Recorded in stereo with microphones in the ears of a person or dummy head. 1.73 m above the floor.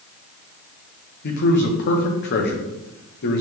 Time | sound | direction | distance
1.2 | a man speaking | 55° left (ahead or behind) | 1.7 m